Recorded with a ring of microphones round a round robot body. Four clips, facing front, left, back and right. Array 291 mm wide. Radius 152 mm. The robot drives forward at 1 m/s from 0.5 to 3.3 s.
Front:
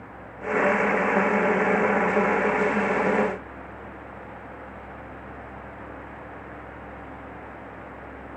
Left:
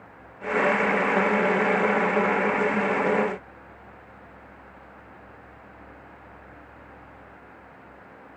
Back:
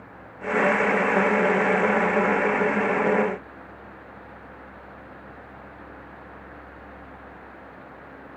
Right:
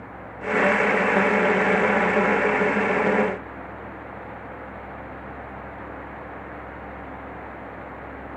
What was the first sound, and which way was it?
Only background noise.